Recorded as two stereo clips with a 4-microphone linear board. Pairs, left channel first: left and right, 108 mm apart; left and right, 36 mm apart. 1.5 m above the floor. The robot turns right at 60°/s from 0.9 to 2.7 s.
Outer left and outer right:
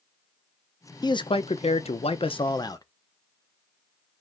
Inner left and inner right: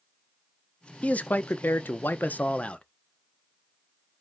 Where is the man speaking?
40° left, 0.6 m; by 2.8 s 140° left, 0.6 m.